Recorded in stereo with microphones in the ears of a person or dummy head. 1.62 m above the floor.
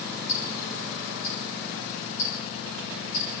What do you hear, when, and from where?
0.3 s ticking: 60° left (ahead or behind), 5 m